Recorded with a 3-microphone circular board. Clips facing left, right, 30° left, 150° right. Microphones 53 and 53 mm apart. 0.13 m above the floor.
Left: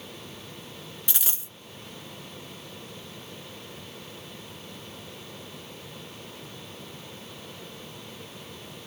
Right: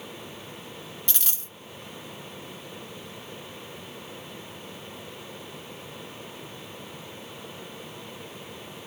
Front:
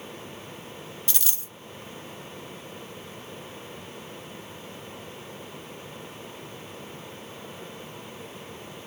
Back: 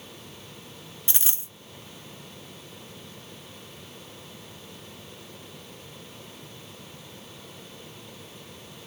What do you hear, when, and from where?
1.1 s a dropped coin: 160° left, 0.7 m